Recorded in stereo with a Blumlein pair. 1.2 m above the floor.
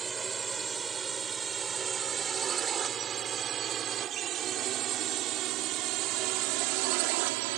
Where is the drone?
15° right; by 7.6 s 50° right.